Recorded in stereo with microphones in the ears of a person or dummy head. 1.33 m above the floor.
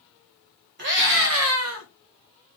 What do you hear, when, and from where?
0.8 s a scream: 55° right (ahead or behind), 1.2 m; by 1.9 s 70° right (ahead or behind), 1.0 m